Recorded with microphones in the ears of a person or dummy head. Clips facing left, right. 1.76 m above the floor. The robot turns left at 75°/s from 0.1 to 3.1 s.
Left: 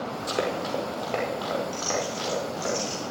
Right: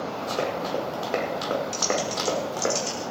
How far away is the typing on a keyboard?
About 8 m.